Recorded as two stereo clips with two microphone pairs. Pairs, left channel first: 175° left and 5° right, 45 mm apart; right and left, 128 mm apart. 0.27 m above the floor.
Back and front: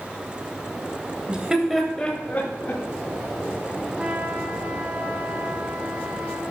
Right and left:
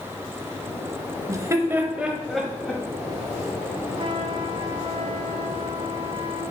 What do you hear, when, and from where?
1.3 s laughter: 45° left, 1.2 m; by 2.8 s 165° right, 1.5 m
4.0 s a trumpet: 60° left, 1.4 m